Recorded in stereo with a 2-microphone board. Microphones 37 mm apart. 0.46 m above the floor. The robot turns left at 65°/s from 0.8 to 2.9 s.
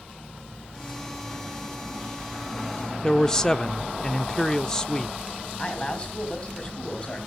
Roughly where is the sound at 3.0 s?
Centre.